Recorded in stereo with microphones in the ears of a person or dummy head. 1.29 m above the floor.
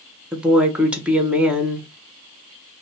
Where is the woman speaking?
10° right (ahead or behind), 0.5 m.